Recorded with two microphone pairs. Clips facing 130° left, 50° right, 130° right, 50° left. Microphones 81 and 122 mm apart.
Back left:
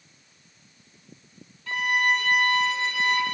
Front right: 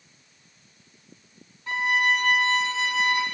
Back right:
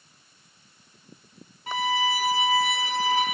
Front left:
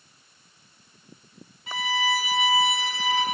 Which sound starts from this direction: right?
A violin, at 1.7 s.